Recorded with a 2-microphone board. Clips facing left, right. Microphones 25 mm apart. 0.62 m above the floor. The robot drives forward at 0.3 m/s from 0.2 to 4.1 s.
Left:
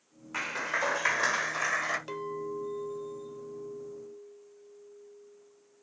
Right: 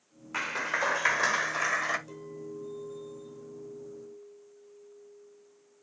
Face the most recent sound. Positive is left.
turn(degrees=40)  # may be behind; listen again after turning